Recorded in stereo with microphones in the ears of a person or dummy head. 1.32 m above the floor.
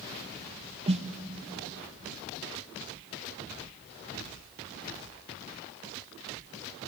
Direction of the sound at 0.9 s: 30° right (ahead or behind).